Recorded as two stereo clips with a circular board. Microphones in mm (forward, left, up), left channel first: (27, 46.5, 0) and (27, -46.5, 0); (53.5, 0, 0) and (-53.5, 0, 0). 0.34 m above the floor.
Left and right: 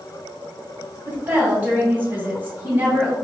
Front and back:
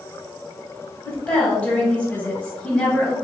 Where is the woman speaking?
60° right, 1.2 m.